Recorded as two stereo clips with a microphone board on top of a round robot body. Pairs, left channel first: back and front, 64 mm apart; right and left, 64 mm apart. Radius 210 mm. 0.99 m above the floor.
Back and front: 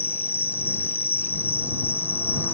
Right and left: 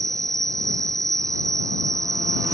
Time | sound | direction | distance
0.0 | an insect | 125° left | ?